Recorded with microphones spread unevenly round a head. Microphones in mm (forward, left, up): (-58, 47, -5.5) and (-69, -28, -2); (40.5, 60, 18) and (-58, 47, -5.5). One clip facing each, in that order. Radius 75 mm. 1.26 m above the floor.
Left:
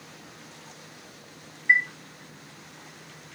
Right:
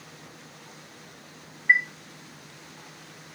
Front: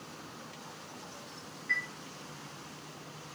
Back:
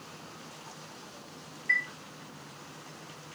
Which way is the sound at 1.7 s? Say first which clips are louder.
Even, back 5 dB; 175° left.